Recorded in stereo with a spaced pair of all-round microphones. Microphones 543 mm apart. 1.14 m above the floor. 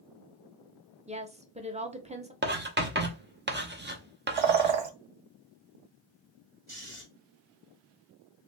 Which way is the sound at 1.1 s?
15° right (ahead or behind).